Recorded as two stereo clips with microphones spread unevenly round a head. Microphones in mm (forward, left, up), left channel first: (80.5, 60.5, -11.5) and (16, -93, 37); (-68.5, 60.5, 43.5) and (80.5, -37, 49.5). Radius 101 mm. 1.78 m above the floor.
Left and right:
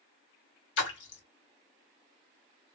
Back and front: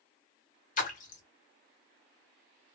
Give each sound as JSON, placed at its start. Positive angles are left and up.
{"t": 0.8, "sound": "a splash", "azimuth_deg": 105, "distance_m": 1.1}